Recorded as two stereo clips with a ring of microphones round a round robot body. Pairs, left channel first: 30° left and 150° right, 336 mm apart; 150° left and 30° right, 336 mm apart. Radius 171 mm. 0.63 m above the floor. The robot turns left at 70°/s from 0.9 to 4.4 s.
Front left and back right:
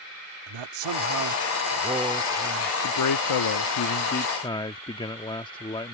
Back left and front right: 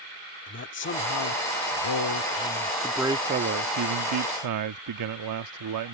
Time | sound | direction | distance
0.5 | a man speaking | 155° right | ?
2.8 | a man speaking | 65° left | ?